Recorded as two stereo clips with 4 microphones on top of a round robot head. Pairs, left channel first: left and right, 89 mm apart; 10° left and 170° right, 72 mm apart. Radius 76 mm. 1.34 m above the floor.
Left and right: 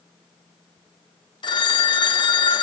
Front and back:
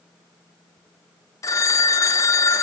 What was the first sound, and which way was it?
A phone ringing, 55° left.